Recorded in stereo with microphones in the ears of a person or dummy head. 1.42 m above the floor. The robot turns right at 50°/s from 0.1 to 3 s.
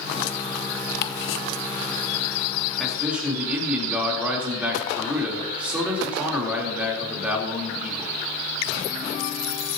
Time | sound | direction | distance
1.0 | ticking | 65° left (ahead or behind) | 0.8 m
2.8 | a man speaking | 5° left (ahead or behind) | 3 m